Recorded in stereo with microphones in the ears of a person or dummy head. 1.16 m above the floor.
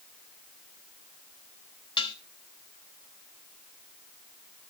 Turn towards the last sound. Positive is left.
turn(degrees=30)  # may be behind; listen again after turning